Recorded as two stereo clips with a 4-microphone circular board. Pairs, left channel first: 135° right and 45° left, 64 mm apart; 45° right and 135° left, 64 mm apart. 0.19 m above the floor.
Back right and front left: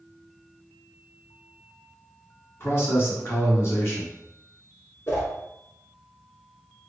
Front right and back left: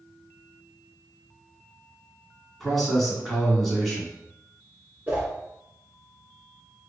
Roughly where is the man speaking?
Behind right.